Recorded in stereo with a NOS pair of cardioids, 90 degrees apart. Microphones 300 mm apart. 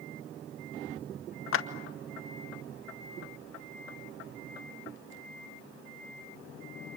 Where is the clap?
50° left, 1.8 m.